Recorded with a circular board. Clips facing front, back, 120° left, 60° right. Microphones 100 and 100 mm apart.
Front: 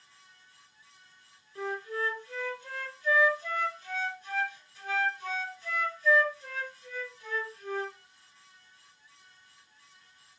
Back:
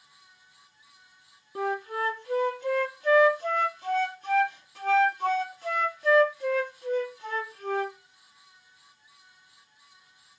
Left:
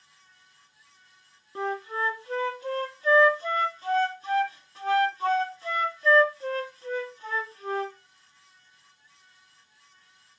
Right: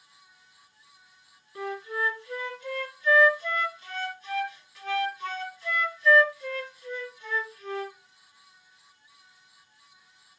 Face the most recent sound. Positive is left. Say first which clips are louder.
# back 5 dB, left 2 dB
turn(degrees=175)